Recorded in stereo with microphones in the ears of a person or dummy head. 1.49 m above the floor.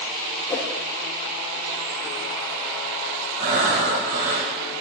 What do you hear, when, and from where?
0.5 s a whoosh: 15° left (ahead or behind), 1.6 m
3.4 s breathing: 50° right (ahead or behind), 2.0 m